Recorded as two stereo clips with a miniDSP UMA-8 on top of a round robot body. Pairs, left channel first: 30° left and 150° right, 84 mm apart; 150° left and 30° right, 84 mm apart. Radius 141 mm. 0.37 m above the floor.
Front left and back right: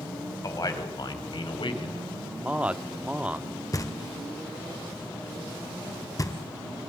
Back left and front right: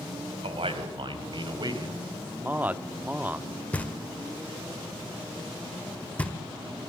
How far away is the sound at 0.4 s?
About 3.5 m.